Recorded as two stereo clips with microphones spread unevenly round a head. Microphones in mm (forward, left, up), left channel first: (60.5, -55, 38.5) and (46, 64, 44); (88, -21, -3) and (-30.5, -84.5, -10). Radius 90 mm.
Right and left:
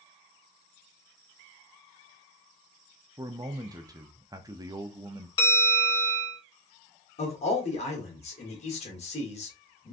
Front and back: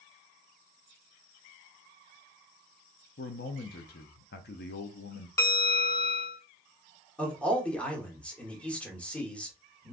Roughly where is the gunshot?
I don't hear a gunshot.